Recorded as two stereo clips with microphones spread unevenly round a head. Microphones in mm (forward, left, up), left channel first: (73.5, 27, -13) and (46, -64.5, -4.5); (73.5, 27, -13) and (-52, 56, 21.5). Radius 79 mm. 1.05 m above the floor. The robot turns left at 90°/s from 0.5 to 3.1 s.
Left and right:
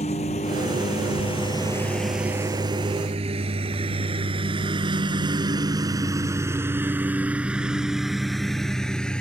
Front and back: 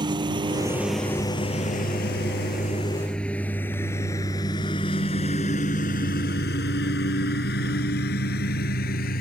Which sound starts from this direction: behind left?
A lawn mower, at 0.0 s.